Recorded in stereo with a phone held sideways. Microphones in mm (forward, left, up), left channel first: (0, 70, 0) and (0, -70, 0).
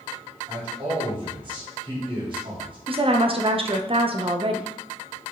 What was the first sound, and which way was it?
A man speaking, 35° right (ahead or behind).